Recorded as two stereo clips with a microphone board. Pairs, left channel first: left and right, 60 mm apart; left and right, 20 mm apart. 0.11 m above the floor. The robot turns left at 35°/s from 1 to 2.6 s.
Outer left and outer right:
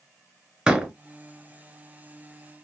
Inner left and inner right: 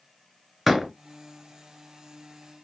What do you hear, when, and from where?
0.7 s a door slam: 15° right (ahead or behind), 0.9 m